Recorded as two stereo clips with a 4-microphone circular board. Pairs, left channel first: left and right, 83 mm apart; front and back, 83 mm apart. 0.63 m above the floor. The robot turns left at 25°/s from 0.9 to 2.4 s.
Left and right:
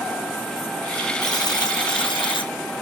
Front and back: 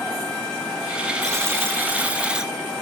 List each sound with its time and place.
1.2 s a buzzer: 130° left, 0.9 m; by 2.5 s 100° left, 0.9 m